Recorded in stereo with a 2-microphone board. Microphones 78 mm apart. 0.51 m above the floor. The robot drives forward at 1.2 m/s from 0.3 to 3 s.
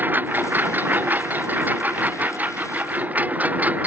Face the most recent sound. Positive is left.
turn(degrees=-20)  # may be behind; listen again after turning